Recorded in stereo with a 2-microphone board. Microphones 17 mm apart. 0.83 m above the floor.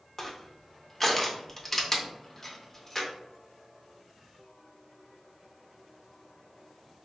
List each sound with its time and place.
0.2 s crushing: 10° left (ahead or behind), 0.5 m